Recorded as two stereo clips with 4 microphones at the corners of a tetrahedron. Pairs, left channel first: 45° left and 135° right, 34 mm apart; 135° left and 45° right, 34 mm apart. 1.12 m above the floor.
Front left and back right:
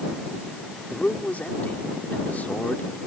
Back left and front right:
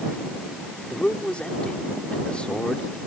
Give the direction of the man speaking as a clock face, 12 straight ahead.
9 o'clock.